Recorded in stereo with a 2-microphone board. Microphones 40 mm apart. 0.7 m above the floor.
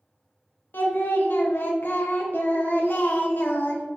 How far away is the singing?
About 0.6 m.